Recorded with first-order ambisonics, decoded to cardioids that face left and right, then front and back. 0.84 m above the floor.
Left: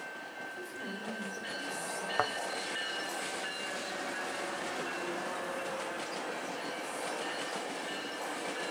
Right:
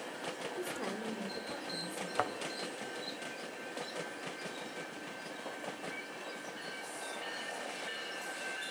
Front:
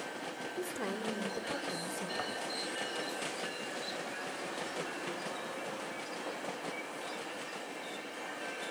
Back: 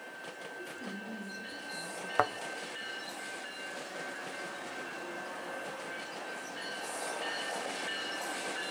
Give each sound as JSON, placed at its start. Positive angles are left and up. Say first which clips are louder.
{"t": 0.6, "sound": "a woman speaking", "louder": "right 2 dB, front 5 dB", "azimuth_deg": -30, "distance_m": 3.5}
{"t": 2.2, "sound": "a thud", "louder": "left 3 dB, back 13 dB", "azimuth_deg": 170, "distance_m": 0.8}